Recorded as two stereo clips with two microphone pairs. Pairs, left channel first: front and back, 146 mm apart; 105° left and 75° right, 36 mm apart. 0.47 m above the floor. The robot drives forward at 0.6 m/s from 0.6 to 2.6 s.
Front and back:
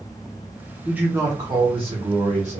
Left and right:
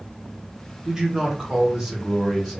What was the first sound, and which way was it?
A man speaking, 105° right.